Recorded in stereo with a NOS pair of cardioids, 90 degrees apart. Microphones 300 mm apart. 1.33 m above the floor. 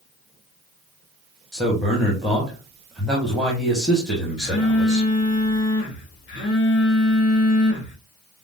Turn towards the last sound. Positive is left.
turn(degrees=40)